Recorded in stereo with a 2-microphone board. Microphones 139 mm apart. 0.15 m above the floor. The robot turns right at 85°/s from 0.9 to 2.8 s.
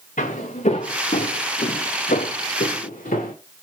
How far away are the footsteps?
About 1.3 m.